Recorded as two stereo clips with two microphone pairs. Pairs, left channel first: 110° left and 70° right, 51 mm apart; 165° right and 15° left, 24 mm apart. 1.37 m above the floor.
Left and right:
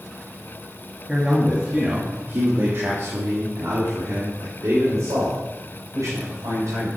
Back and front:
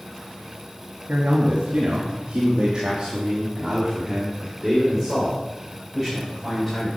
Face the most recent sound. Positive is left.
turn(degrees=-70)